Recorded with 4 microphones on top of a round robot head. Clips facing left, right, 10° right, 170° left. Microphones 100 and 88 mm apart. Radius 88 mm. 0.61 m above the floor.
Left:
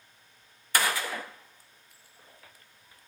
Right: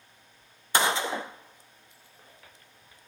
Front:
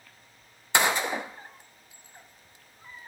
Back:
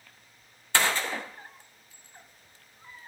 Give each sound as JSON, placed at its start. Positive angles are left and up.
{"t": 0.7, "sound": "a gunshot", "azimuth_deg": -60, "distance_m": 0.7}